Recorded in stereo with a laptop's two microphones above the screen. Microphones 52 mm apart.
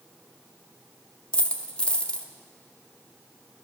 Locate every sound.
1.3 s a dropped coin: 20° left (ahead or behind), 0.5 m